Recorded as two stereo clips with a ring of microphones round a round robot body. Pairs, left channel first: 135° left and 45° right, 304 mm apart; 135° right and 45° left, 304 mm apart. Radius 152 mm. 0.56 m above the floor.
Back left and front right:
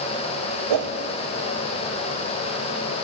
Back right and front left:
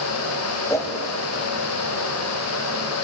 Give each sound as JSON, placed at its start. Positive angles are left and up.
{"t": 0.7, "sound": "a whoosh", "azimuth_deg": -55, "distance_m": 1.4}